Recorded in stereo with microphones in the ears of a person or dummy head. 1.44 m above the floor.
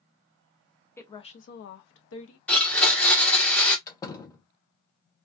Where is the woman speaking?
10° left (ahead or behind), 0.6 m; by 2.4 s 80° left, 0.8 m.